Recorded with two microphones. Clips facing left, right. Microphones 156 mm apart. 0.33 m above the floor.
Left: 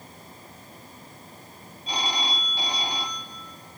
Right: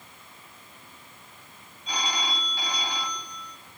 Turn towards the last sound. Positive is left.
turn(degrees=30)  # may be behind; listen again after turning